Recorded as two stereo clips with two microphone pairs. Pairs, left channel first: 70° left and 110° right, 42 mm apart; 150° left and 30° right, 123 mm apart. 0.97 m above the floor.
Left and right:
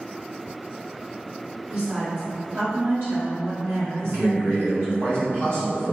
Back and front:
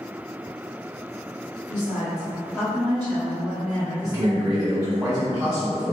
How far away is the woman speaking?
About 1.1 m.